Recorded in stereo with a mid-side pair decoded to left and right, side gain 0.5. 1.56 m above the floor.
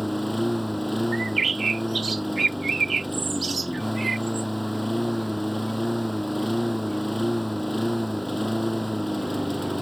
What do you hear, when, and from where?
0.0 s a lawn mower: 5° right
1.1 s a bird: 35° right